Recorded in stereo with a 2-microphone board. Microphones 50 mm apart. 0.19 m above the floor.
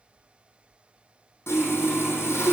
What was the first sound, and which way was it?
Sawing, 60° left (ahead or behind).